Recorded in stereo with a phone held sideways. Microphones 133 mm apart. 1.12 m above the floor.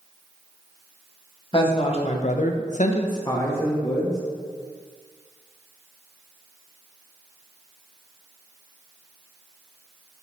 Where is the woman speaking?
35° left (ahead or behind), 1.3 m; by 4.2 s 5° left (ahead or behind), 1.5 m.